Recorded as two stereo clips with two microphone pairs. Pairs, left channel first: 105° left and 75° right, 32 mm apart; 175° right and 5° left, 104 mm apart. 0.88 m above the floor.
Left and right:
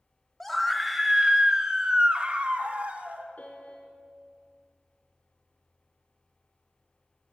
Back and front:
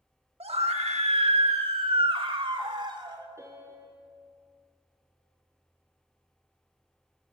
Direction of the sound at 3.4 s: 70° left.